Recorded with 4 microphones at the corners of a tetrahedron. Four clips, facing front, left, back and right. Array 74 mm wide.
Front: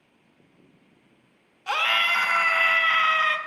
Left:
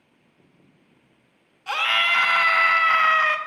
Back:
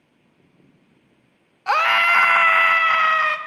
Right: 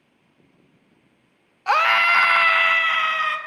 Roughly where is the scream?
Behind right.